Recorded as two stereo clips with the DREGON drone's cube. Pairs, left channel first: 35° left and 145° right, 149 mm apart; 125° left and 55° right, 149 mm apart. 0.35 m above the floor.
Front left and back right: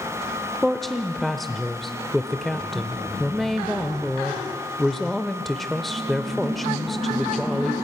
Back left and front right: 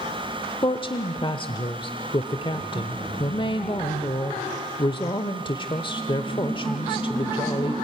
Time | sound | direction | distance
0.6 | a woman speaking | 120° left | 1.0 m